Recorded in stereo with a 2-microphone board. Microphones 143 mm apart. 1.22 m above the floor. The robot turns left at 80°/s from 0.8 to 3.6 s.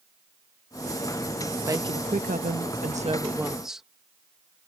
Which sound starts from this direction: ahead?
A woman speaking, at 1.7 s.